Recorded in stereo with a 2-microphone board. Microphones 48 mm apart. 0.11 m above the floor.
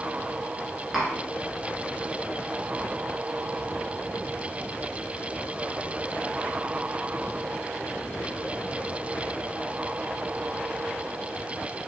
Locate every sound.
0.9 s tapping: 5° right (ahead or behind), 0.9 m